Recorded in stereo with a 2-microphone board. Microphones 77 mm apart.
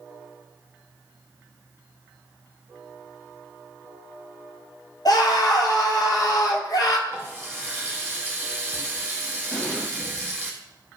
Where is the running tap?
30° right (ahead or behind), 2.5 m.